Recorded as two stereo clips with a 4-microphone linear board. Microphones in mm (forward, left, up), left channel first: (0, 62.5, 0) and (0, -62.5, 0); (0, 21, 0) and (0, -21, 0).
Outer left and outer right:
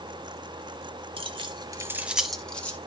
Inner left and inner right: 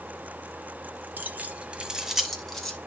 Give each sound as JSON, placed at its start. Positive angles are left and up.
{"t": 1.2, "sound": "keys jangling", "side_deg": -45, "distance_m": 1.2}